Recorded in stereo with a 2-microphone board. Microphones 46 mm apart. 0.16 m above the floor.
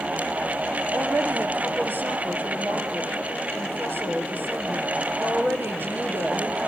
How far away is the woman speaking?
About 4 m.